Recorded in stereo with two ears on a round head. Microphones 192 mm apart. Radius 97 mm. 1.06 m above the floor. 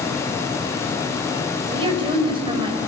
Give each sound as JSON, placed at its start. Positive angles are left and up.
{"t": 1.7, "sound": "a woman speaking", "side_deg": -25, "distance_m": 4.0}